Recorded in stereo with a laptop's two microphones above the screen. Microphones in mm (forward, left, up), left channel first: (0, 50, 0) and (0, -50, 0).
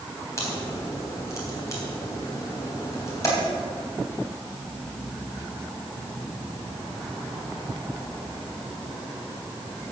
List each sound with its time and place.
0.4 s a crack: 30° left (ahead or behind), 3.5 m